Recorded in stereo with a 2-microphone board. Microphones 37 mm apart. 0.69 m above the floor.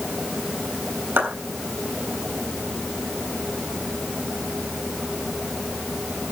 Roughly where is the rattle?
I don't hear a rattle.